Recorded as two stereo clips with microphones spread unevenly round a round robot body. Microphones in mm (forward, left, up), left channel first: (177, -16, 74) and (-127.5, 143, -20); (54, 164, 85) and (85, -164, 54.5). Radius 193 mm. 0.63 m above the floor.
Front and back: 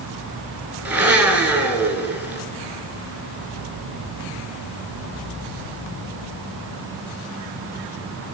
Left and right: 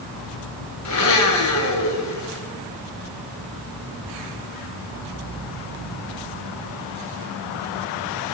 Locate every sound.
0.8 s a blender: 60° left, 1.6 m